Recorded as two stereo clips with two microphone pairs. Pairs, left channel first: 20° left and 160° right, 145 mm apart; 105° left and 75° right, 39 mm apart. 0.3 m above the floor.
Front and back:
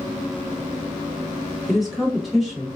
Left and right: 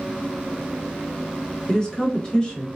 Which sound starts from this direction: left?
A woman speaking, at 1.7 s.